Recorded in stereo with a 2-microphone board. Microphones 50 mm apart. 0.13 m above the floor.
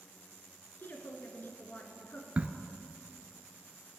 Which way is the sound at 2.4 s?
30° right (ahead or behind).